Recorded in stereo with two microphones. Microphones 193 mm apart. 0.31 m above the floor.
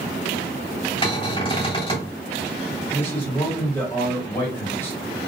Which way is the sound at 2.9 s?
10° left (ahead or behind).